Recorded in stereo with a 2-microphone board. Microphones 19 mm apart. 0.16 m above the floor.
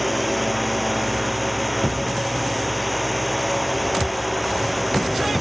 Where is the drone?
10° right (ahead or behind).